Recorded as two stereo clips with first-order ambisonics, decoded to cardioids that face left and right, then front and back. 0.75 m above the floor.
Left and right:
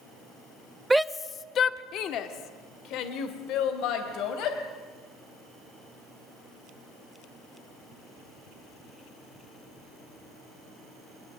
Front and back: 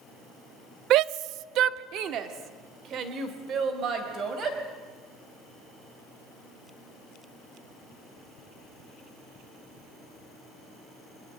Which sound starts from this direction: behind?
A shout, at 0.9 s.